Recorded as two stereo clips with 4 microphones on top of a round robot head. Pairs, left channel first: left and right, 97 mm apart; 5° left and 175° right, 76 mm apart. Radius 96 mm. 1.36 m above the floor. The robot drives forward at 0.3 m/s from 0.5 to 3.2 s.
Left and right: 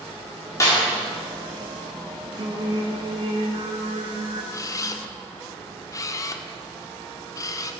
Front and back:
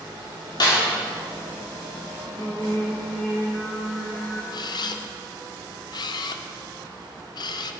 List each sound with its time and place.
0.6 s a snare drum: 30° left, 4.5 m
2.4 s singing: 65° right, 1.2 m; by 4.4 s 80° right, 1.1 m
4.5 s a camera shutter: 35° left, 0.7 m